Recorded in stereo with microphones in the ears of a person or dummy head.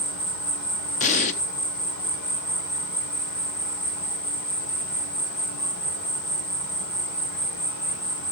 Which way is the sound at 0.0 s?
60° left (ahead or behind).